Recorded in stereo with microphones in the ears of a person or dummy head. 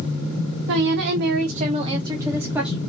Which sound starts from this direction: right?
A woman speaking, at 0.7 s.